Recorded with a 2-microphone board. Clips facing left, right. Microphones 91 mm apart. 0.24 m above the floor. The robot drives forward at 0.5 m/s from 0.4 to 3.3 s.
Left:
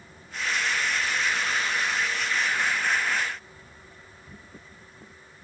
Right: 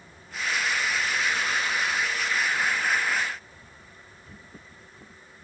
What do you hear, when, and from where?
Only background noise.